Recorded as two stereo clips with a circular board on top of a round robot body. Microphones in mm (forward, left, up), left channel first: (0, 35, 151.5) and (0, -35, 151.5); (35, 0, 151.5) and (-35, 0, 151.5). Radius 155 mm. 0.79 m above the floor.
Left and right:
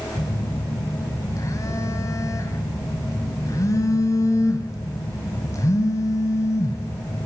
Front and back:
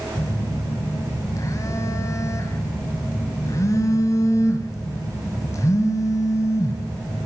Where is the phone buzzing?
45° left, 3 m.